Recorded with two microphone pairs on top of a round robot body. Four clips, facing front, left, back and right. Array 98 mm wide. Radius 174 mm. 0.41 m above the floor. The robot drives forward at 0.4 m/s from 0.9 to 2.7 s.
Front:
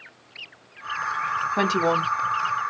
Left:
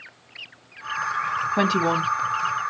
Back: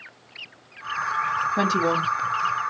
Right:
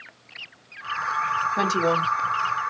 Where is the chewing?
I don't hear chewing.